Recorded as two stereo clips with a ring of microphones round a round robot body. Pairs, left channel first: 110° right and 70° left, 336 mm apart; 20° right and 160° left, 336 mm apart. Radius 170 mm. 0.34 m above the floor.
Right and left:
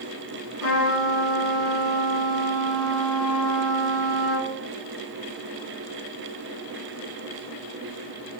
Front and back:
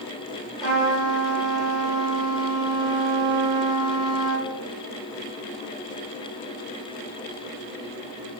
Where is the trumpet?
110° right, 1.5 m.